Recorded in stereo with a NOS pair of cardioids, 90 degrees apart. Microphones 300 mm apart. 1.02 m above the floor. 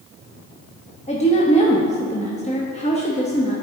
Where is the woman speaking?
20° left, 0.9 m.